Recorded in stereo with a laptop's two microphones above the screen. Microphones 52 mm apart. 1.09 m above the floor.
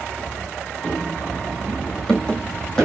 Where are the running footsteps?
30° left (ahead or behind), 1.2 m; by 2.9 s 10° left (ahead or behind), 2 m.